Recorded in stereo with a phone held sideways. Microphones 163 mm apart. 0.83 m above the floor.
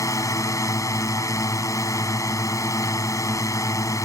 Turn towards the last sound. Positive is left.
turn(degrees=20)  # may be behind; listen again after turning